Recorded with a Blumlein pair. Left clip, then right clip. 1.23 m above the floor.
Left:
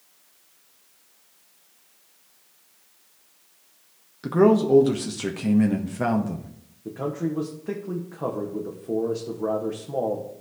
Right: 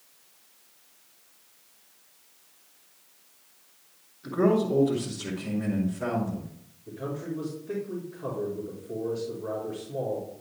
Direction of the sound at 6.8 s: 45° left.